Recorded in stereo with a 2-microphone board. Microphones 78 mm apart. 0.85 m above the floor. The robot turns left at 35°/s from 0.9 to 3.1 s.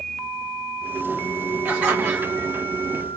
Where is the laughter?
10° right (ahead or behind), 0.9 m; by 2.6 s 20° right (ahead or behind), 0.9 m.